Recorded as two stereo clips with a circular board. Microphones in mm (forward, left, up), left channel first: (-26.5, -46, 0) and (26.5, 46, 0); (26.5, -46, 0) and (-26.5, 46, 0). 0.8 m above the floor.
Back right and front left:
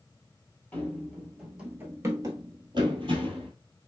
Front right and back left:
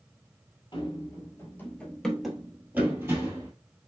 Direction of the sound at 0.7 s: 50° right.